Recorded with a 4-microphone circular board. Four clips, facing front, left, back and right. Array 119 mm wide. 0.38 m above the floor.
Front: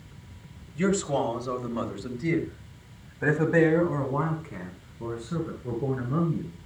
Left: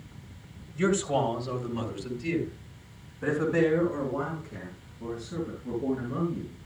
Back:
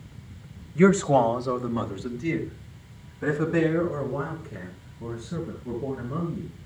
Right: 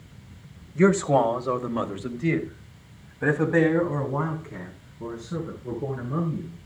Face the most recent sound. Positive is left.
turn(degrees=-30)